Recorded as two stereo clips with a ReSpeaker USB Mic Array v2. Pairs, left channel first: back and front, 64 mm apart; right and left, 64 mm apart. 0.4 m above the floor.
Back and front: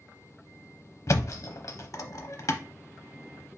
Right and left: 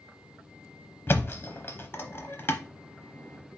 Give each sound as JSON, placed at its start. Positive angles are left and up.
{"t": 1.1, "sound": "a thud", "azimuth_deg": -145, "distance_m": 0.6}